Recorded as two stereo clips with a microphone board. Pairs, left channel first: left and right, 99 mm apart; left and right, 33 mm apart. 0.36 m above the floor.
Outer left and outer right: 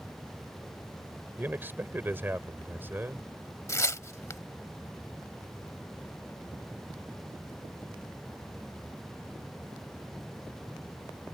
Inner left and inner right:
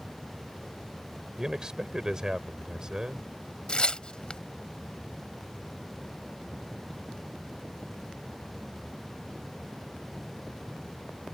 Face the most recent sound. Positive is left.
turn(degrees=30)  # may be behind; listen again after turning